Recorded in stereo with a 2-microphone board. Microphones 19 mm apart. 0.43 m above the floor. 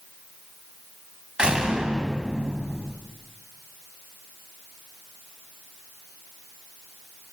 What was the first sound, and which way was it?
A door slam, 55° right (ahead or behind).